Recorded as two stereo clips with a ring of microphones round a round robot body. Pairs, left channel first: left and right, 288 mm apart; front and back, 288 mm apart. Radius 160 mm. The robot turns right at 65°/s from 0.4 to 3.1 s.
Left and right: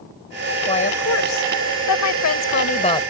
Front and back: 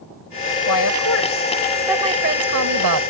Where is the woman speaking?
15° left; by 3.0 s 165° left.